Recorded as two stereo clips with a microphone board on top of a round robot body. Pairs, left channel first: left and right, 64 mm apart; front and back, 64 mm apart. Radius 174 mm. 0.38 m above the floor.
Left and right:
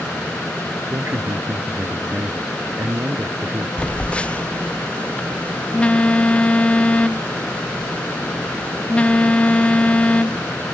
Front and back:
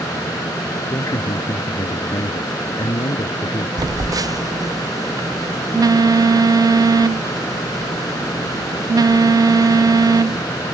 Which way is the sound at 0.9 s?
35° right.